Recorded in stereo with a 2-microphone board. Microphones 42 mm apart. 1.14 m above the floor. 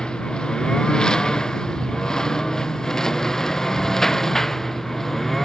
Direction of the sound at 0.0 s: 20° left (ahead or behind).